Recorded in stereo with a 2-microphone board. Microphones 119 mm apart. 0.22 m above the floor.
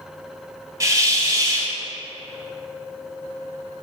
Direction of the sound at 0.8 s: 30° right (ahead or behind).